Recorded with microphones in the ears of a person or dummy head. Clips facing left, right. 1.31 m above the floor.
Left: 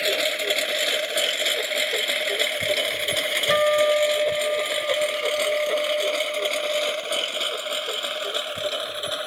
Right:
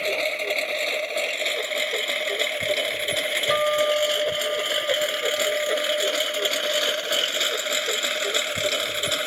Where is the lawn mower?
10° left (ahead or behind); by 9.3 s 35° right (ahead or behind).